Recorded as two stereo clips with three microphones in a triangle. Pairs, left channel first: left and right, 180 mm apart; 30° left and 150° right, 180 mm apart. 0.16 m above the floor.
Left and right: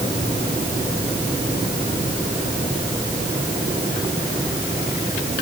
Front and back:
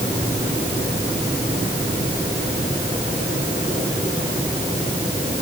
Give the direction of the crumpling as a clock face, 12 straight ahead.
I don't hear crumpling.